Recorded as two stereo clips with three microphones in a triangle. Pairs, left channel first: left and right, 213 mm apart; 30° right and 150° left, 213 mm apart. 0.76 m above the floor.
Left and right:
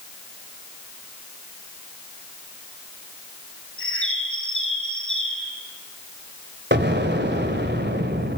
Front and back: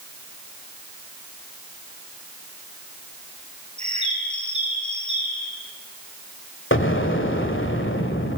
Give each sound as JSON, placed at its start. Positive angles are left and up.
{"t": 3.8, "sound": "a bird", "azimuth_deg": 90, "distance_m": 4.0}
{"t": 6.7, "sound": "an explosion", "azimuth_deg": -55, "distance_m": 2.0}